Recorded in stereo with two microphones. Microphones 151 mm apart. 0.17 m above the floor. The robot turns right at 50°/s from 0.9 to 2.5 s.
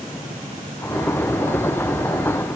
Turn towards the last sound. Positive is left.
No sound to turn to.